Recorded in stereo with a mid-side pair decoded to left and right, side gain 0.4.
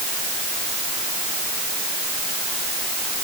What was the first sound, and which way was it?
Only background noise.